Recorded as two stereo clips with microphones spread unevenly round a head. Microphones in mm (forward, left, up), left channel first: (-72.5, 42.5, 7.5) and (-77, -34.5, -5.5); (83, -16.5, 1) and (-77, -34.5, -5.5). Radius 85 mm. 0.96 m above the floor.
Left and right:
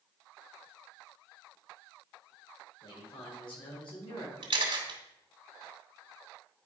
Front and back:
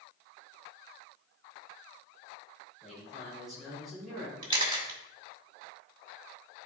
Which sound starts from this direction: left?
A man speaking, at 2.8 s.